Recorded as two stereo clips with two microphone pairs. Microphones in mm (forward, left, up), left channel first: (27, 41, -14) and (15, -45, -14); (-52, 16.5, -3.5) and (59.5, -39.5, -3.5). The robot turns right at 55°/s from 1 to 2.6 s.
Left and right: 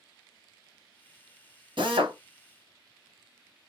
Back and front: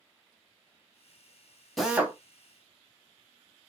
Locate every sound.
1.8 s a drill: 115° right, 0.9 m; by 2.2 s 95° right, 0.9 m